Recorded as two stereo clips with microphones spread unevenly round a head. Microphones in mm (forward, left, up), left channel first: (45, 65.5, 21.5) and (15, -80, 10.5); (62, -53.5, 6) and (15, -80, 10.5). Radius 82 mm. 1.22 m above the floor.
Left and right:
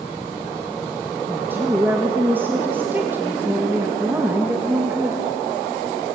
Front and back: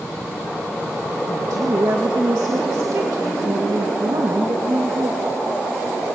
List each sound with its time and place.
1.3 s a woman speaking: straight behind, 1.8 m